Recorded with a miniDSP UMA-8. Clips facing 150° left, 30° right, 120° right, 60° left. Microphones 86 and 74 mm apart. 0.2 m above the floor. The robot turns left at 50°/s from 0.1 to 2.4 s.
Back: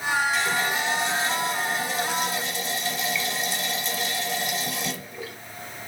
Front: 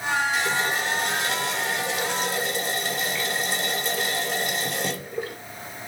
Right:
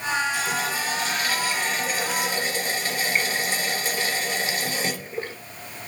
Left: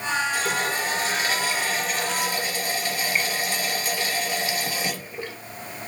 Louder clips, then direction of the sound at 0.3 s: Even, left 1 dB; 45° left.